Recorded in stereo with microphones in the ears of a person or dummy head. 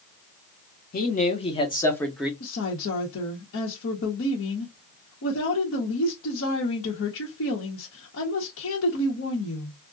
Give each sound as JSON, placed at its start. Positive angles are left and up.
{"t": 0.9, "sound": "a man speaking", "side_deg": 45, "distance_m": 1.0}
{"t": 2.4, "sound": "a woman speaking", "side_deg": 75, "distance_m": 0.9}